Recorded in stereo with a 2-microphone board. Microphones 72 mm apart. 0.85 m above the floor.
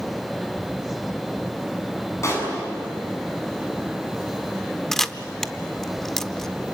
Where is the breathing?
I don't hear breathing.